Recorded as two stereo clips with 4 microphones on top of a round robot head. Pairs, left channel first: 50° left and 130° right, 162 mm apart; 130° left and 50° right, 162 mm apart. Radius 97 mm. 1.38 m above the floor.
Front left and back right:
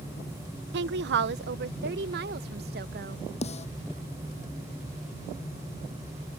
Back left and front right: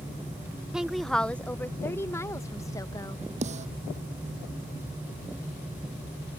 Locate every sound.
0.7 s a woman speaking: 135° right; by 3.2 s 160° right
3.4 s a snare drum: straight ahead